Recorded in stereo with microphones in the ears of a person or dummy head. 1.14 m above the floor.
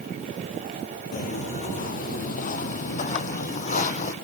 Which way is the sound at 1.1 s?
45° left (ahead or behind).